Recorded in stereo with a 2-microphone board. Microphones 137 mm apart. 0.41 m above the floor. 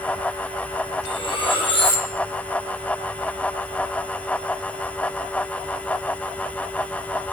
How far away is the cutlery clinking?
About 8 m.